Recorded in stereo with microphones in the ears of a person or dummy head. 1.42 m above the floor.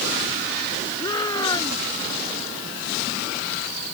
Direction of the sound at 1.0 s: 20° left (ahead or behind).